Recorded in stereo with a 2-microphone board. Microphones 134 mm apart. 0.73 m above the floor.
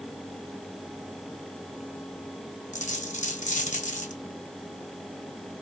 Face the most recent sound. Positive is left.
turn(degrees=70)  # may be behind; listen again after turning